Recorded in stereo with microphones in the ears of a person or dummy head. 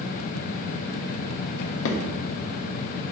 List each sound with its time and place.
1.6 s a drawer: 65° left (ahead or behind), 1.0 m